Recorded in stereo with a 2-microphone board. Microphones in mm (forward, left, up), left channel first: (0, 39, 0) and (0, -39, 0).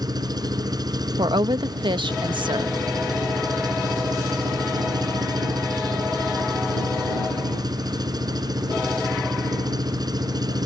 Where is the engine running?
55° right (ahead or behind).